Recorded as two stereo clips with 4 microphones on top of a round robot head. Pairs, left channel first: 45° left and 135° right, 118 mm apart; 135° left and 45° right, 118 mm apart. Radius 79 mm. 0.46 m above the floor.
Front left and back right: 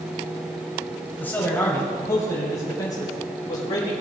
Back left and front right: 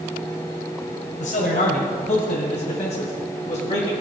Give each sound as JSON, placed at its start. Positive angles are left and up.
{"t": 1.2, "sound": "a man speaking", "azimuth_deg": 120, "distance_m": 2.5}